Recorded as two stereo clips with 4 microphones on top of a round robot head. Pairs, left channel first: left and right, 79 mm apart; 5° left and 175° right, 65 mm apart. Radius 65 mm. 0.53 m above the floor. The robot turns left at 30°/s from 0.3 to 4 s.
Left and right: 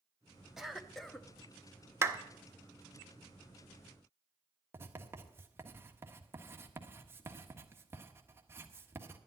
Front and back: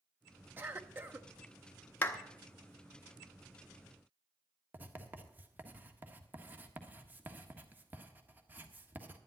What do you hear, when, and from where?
0.6 s a cough: 170° right, 1.0 m; by 1.3 s 165° left, 1.0 m
2.0 s a clap: 50° right, 1.3 m; by 2.2 s 55° right, 1.3 m
4.7 s writing: 130° right, 1.5 m